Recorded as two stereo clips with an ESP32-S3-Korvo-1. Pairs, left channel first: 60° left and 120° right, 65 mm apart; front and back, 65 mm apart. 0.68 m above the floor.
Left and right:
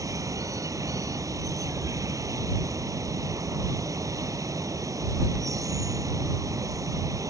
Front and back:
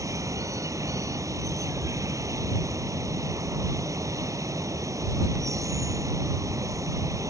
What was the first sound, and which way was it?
Running water, 150° right.